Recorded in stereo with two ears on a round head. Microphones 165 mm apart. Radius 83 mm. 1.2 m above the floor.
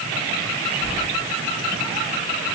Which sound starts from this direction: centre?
Keys jangling, at 0.8 s.